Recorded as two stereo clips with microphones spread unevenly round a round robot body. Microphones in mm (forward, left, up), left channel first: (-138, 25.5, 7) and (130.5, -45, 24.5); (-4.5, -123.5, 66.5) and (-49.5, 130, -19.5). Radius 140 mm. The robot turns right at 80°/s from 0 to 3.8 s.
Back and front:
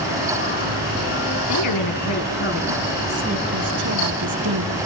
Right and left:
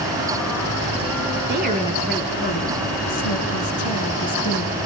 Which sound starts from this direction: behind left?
A woman speaking, at 1.5 s.